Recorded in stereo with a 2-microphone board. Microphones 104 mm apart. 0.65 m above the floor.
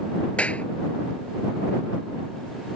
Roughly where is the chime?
No chime in this recording.